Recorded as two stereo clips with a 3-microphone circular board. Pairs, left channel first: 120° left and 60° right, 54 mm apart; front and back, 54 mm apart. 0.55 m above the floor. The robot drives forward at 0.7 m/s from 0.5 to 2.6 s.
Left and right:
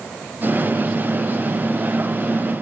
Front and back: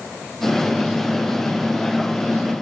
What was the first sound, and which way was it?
Only background noise.